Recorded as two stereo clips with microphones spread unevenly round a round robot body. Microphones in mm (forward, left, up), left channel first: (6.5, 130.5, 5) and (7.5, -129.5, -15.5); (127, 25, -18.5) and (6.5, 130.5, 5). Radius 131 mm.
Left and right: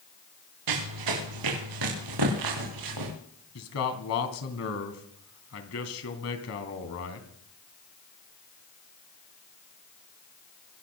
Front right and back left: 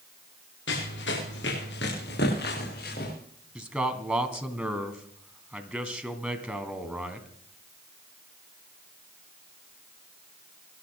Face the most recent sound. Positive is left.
turn(degrees=55)